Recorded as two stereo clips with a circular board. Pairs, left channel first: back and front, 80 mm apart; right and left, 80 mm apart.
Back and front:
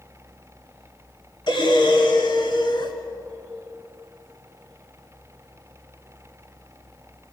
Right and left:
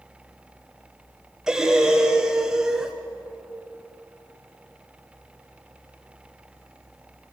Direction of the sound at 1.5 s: 170° left.